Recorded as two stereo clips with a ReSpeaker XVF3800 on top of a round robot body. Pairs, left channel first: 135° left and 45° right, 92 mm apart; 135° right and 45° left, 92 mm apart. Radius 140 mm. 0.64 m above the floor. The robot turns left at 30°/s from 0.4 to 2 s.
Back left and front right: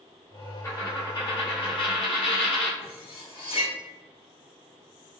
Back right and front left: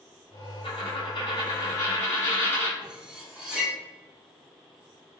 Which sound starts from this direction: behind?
A dropped coin, at 0.6 s.